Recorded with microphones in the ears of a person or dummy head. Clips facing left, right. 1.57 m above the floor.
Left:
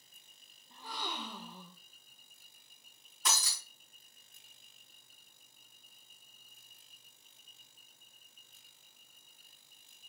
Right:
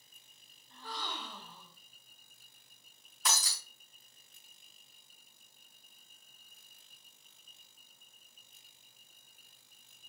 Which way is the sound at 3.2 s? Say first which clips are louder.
Even; 55° right (ahead or behind).